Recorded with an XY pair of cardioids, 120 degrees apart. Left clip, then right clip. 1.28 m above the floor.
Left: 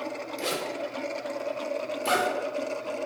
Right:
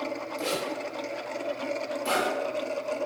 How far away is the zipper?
About 0.8 m.